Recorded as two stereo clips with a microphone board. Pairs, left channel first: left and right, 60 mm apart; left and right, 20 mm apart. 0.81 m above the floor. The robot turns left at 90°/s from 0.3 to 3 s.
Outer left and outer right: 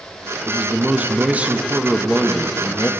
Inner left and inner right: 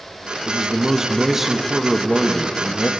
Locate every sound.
0.5 s a man speaking: 10° right (ahead or behind), 0.6 m; by 2.9 s 20° left (ahead or behind), 0.6 m